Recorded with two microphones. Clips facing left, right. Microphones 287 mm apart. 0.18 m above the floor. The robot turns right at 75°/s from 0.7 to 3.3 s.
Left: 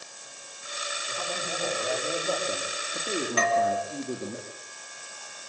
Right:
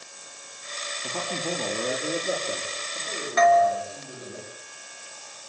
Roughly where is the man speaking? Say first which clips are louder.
Right 6 dB; right.